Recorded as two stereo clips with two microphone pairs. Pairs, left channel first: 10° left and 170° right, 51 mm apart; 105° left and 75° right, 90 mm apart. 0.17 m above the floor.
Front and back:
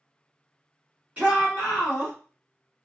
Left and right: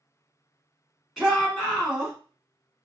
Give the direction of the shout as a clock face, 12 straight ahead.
5 o'clock.